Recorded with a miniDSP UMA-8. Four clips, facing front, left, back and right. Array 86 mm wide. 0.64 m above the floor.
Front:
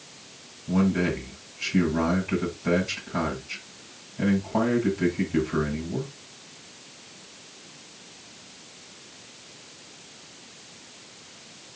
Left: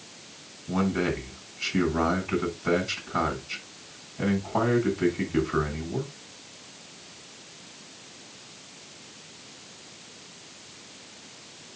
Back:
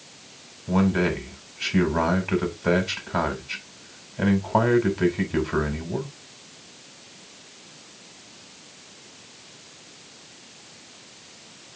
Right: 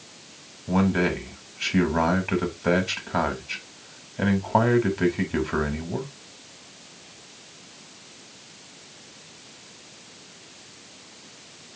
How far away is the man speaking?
About 3.5 m.